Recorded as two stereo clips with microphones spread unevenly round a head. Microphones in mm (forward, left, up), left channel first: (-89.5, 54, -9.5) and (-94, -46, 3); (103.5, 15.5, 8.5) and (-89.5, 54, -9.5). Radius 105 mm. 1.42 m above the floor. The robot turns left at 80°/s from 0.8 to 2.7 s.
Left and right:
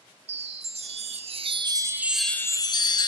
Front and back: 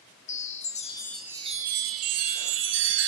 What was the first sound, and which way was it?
A chime, 70° right.